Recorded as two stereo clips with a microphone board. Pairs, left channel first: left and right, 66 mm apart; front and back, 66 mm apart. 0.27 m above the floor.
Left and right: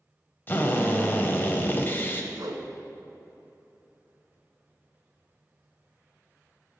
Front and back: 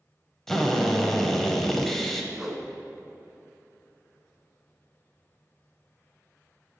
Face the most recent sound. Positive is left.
turn(degrees=-95)